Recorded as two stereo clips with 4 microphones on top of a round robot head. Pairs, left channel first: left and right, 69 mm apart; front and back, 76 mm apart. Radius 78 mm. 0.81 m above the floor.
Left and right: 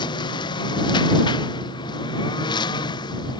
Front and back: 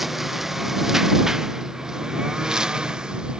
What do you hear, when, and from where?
0.0 s a lawn mower: 90° left; by 3.4 s 100° left